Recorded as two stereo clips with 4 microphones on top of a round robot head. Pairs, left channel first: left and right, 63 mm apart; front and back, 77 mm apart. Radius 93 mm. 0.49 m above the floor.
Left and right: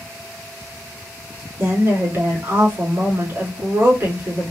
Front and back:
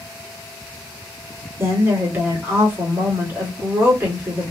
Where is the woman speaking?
125° right, 1.7 m.